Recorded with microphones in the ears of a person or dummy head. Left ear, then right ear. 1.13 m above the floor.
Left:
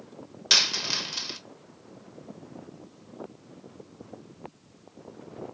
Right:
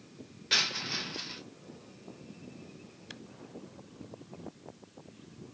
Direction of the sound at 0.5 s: 60° left (ahead or behind).